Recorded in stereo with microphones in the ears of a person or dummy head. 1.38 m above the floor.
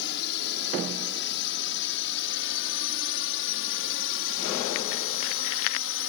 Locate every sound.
0.0 s a drone: 60° left (ahead or behind); by 6.1 s 65° left (ahead or behind)